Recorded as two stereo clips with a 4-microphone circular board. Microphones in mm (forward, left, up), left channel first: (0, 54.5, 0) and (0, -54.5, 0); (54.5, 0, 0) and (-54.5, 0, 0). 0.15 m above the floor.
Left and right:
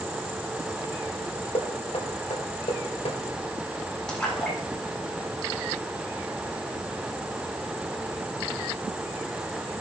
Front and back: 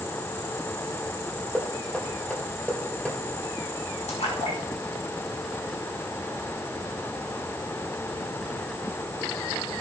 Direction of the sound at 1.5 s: 80° left.